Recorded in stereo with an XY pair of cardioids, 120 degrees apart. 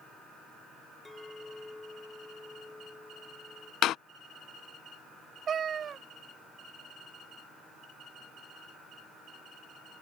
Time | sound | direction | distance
1.1 | a clink | 10° left | ?
3.8 | a door slam | 70° left | ?
5.5 | a cat meowing | 45° right | ?